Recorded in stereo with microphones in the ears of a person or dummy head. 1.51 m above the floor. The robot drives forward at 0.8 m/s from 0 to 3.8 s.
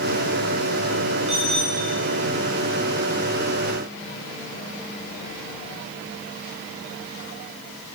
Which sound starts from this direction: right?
A bicycle bell, at 1.3 s.